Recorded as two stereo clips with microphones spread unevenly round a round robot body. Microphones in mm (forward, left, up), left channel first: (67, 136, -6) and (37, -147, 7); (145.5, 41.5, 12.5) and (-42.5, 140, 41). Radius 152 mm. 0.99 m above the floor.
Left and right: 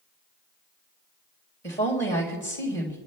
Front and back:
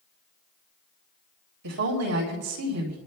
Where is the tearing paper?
No tearing paper in this recording.